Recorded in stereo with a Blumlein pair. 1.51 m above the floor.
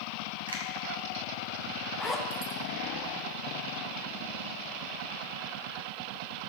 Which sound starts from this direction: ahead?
A zipper, at 2.0 s.